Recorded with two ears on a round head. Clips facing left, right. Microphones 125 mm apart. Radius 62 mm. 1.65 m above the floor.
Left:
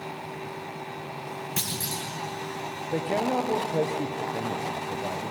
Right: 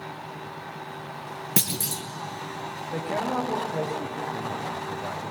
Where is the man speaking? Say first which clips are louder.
Left 2 dB; 30° left (ahead or behind), 1.1 m.